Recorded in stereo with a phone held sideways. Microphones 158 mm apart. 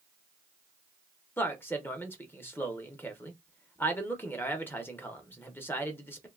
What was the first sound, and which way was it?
A man speaking, 15° left (ahead or behind).